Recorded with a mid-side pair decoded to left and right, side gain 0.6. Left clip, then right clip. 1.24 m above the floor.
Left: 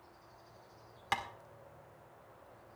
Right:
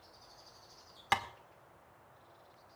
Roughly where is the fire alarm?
I don't hear a fire alarm.